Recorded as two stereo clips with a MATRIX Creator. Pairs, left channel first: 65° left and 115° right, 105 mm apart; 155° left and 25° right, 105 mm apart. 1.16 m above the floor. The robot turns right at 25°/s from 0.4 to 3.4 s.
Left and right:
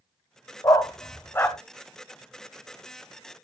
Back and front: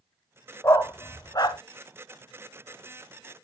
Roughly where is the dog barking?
Left.